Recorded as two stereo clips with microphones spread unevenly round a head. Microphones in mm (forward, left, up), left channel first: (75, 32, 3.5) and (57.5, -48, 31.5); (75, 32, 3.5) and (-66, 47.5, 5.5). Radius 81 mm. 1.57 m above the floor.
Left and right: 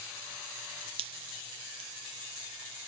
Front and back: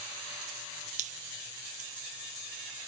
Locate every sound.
1.0 s dripping: 135° right